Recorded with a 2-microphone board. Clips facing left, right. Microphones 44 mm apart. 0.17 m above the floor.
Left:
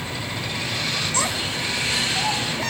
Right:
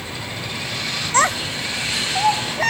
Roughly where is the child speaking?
Right.